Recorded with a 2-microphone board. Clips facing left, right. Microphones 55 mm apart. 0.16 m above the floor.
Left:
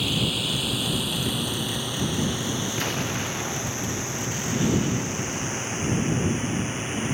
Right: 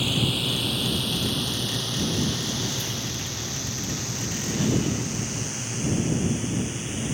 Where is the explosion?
55° left (ahead or behind).